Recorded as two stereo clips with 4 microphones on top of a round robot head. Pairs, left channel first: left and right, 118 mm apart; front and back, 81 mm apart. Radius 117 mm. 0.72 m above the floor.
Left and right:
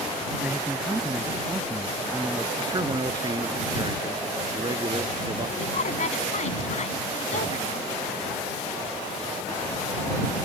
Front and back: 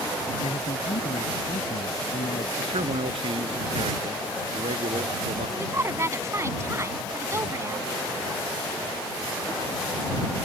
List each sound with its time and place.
0.4 s a man speaking: 15° right
2.6 s a man speaking: 150° right
5.6 s a woman speaking: 125° left